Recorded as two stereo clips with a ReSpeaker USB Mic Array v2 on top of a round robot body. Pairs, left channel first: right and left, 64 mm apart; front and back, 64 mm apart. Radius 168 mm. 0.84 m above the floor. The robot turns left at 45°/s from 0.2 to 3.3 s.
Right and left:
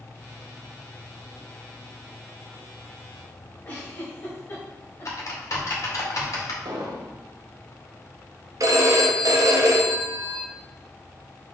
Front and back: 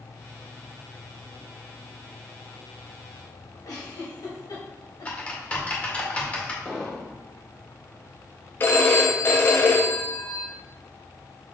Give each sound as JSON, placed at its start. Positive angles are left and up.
{"t": 3.6, "sound": "a giggle", "azimuth_deg": -25, "distance_m": 1.5}
{"t": 5.0, "sound": "typing on a keyboard", "azimuth_deg": -65, "distance_m": 2.0}
{"t": 6.7, "sound": "an explosion", "azimuth_deg": 75, "distance_m": 1.2}
{"t": 8.6, "sound": "a phone ringing", "azimuth_deg": 55, "distance_m": 0.5}